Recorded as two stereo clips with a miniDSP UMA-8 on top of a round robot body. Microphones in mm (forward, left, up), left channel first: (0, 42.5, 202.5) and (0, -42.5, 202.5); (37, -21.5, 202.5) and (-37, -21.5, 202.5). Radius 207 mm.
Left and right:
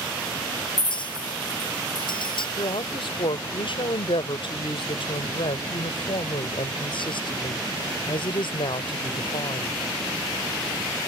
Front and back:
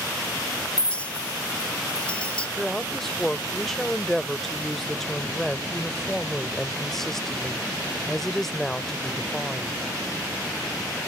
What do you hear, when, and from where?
0.8 s a clink: 75° left
2.6 s a woman speaking: 85° left